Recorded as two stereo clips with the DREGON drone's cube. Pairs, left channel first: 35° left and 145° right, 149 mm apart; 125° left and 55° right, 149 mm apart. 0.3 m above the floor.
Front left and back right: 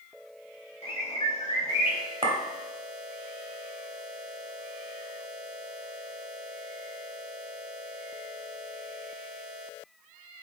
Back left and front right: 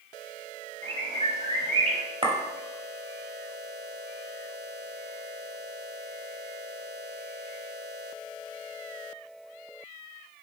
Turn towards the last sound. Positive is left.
turn(degrees=-100)